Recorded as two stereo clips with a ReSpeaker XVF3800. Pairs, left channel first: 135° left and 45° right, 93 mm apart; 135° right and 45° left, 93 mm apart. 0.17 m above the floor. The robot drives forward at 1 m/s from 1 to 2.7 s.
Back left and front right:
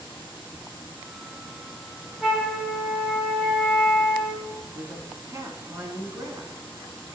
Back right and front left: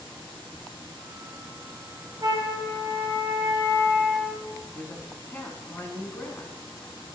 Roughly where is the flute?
Ahead left.